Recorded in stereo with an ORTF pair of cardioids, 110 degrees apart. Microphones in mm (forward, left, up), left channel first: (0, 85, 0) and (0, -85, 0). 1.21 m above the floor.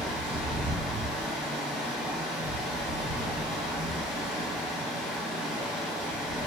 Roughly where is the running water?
Ahead.